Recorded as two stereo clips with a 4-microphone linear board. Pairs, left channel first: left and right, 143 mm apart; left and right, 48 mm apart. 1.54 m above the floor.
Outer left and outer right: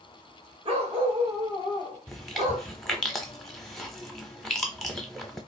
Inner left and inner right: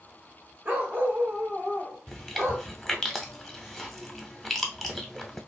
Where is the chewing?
5° left (ahead or behind), 0.8 m.